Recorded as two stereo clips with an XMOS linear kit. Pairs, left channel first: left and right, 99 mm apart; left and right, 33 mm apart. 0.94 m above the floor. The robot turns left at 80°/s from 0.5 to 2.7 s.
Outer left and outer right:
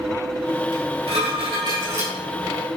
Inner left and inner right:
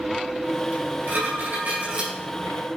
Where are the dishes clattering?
50° right, 3.5 m; by 2.1 s 160° right, 3.5 m.